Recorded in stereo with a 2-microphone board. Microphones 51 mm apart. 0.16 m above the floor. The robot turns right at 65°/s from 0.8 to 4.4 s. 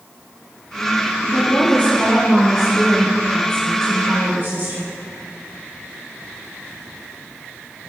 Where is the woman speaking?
95° left, 2.5 m; by 5.0 s 60° right, 2.5 m.